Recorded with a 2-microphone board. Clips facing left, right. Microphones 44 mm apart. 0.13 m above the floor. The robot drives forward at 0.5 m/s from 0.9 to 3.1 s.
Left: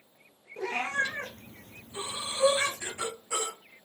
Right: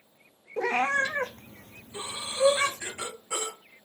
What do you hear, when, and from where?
0.6 s a cat meowing: 85° right, 0.6 m; by 2.8 s 35° right (ahead or behind), 1.1 m
1.9 s breathing: 30° right (ahead or behind), 1.6 m; by 3.6 s 20° right (ahead or behind), 2 m